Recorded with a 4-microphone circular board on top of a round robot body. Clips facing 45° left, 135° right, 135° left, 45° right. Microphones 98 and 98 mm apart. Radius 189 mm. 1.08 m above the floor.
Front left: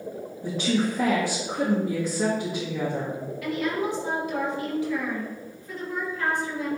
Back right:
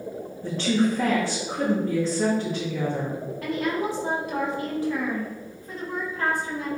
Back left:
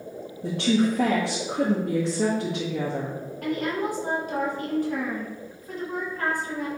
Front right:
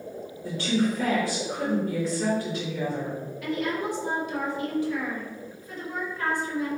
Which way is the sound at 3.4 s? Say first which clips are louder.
Even, back left 2 dB; 175° left.